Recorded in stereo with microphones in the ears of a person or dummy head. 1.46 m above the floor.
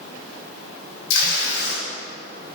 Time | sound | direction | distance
1.1 | tape being pulled | 85° left | 3 m